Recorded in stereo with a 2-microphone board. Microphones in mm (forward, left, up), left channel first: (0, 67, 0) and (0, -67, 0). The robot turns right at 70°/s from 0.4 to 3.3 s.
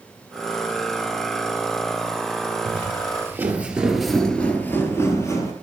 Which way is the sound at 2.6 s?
45° right (ahead or behind).